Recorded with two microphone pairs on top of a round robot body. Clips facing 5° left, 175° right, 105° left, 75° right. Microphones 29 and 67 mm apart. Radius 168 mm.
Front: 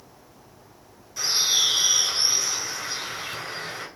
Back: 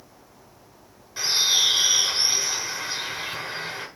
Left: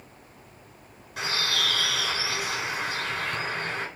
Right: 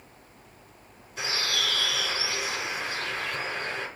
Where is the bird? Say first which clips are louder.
Back 1 dB, left 2 dB; 130° left, 7.5 m.